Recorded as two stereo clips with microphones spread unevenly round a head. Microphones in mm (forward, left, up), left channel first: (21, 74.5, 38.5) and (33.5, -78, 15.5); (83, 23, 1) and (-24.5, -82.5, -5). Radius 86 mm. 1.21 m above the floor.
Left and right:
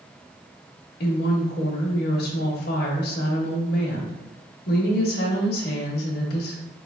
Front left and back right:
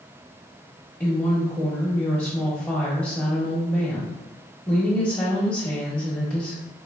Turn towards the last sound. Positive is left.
turn(degrees=130)